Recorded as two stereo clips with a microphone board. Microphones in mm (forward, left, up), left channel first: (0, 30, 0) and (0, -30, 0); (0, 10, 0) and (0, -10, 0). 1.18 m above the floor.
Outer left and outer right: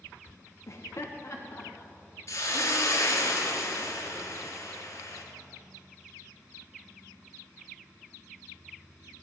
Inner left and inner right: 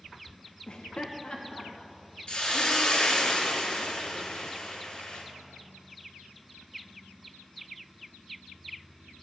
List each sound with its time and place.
0.7 s laughter: 50° left (ahead or behind), 0.6 m; by 3.3 s 40° left (ahead or behind), 3.5 m
2.3 s a hiss: 50° left (ahead or behind), 2.5 m